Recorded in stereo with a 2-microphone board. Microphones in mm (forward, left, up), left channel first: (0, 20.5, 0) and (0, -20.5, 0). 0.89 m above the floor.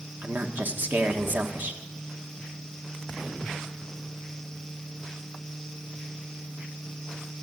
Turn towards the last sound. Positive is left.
turn(degrees=-50)  # may be behind; listen again after turning